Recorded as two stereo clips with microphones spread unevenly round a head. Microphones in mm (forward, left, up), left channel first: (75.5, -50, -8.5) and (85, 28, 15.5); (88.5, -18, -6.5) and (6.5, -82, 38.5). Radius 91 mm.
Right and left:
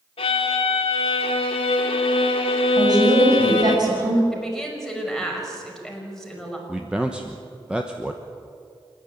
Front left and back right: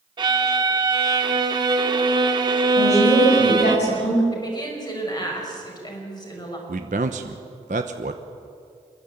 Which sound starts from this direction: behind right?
A violin, at 0.2 s.